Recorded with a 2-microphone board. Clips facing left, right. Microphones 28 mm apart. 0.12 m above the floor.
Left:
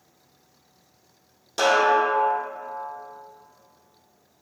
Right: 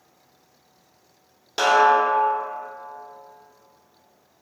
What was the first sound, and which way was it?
A snare drum, 25° right (ahead or behind).